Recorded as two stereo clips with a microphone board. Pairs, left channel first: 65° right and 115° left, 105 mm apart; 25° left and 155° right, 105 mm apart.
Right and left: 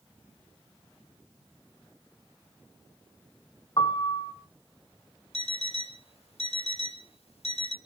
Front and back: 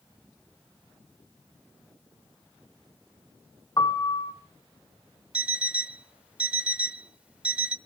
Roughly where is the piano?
Ahead right.